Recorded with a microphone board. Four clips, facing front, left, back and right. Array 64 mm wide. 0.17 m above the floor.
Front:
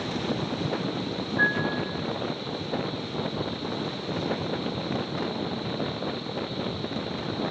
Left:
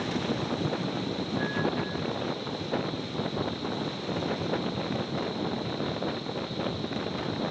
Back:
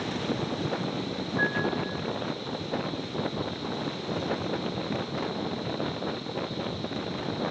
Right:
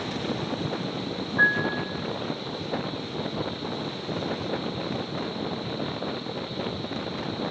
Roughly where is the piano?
Right.